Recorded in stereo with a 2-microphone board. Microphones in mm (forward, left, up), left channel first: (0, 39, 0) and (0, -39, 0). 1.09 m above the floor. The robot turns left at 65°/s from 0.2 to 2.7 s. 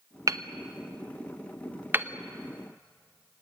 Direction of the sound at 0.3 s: 45° right (ahead or behind).